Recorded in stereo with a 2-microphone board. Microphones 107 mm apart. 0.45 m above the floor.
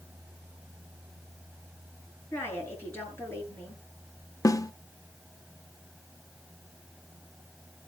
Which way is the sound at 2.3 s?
20° left (ahead or behind).